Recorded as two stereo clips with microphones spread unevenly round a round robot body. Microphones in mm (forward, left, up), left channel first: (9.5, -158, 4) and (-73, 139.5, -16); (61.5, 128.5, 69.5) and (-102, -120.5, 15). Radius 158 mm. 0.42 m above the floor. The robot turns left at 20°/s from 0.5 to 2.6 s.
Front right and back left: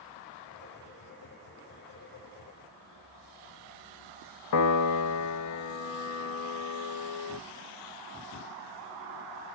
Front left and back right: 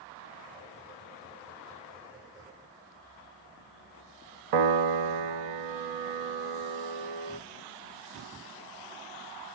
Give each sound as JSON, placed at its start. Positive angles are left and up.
{"t": 4.5, "sound": "a piano", "azimuth_deg": -110, "distance_m": 0.6}